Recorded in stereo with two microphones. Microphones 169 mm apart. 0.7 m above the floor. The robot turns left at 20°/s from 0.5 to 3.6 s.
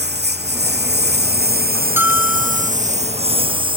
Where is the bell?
15° right (ahead or behind); by 2.7 s centre (ahead or behind).